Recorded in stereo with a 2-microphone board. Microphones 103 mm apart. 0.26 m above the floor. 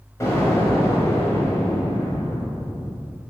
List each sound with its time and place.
0.2 s an explosion: 30° left (ahead or behind), 1.0 m